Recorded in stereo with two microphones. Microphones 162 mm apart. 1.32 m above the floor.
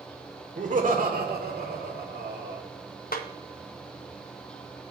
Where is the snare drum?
65° left (ahead or behind), 0.7 m.